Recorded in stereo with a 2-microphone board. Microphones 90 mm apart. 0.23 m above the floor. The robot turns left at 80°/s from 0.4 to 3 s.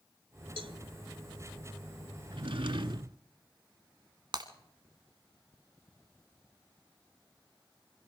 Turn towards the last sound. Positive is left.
turn(degrees=-55)  # may be behind; listen again after turning